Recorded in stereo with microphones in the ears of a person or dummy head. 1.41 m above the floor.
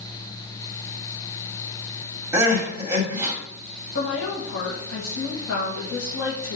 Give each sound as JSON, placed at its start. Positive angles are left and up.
{"t": 2.3, "sound": "crying", "side_deg": -10, "distance_m": 2.5}
{"t": 4.0, "sound": "a woman speaking", "side_deg": 80, "distance_m": 1.7}